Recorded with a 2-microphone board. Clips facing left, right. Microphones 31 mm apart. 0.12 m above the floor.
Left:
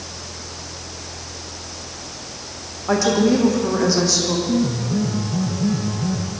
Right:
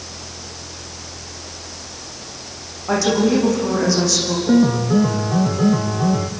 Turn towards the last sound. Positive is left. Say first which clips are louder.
# right 6 dB
turn(degrees=-60)  # may be behind; listen again after turning